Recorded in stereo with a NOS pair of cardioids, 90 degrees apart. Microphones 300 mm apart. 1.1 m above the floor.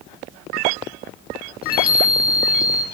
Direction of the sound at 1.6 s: 30° left.